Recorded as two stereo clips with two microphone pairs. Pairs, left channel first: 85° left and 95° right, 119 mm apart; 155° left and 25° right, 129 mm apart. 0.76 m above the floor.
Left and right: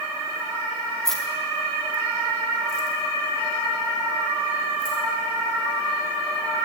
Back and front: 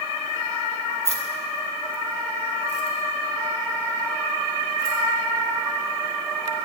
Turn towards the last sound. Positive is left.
turn(degrees=-55)